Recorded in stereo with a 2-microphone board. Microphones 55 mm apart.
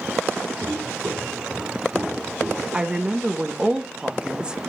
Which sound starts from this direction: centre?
A woman speaking, at 2.7 s.